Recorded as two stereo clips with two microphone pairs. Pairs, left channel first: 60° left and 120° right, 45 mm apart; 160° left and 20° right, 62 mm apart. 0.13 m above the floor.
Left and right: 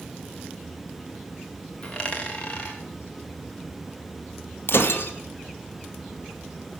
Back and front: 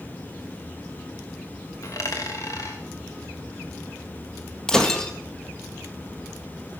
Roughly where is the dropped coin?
Behind left.